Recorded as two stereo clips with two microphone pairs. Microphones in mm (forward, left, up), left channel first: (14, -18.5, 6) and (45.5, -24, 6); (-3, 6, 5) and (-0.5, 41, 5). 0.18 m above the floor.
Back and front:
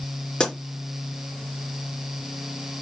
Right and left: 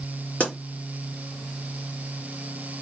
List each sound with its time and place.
0.4 s a pop: 135° right, 3 m